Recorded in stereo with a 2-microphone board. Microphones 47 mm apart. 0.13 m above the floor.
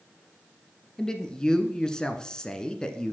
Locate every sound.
1.0 s a man speaking: 15° left (ahead or behind), 1.2 m